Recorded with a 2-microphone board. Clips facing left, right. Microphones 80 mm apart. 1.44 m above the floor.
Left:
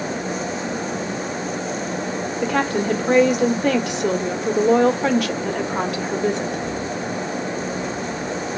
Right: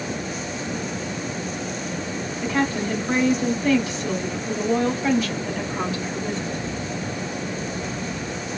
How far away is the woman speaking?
About 1.2 m.